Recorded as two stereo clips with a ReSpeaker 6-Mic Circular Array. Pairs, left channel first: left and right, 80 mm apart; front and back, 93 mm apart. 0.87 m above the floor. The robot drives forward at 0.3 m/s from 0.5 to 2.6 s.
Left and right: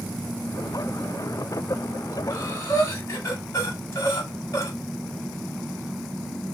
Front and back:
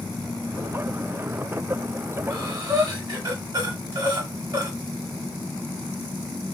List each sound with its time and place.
2.3 s breathing: 135° left, 1.0 m; by 4.7 s 140° left, 1.1 m